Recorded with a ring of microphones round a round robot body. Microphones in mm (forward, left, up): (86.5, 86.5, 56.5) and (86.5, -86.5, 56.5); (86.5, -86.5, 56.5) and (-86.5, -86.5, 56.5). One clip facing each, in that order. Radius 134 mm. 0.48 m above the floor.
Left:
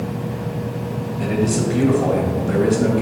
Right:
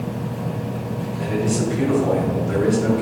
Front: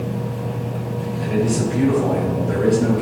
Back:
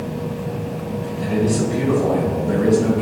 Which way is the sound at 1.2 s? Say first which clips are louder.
Left 2 dB, back 1 dB; 70° left.